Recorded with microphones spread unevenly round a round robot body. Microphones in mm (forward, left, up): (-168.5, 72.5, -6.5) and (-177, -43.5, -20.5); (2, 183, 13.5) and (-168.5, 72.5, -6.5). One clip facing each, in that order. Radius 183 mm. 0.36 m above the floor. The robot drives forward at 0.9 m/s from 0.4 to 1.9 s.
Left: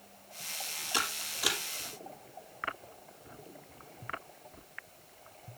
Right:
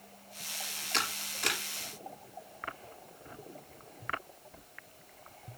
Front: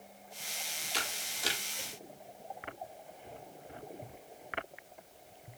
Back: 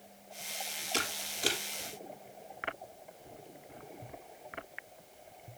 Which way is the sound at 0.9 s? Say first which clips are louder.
Even, back 5 dB; 170° left.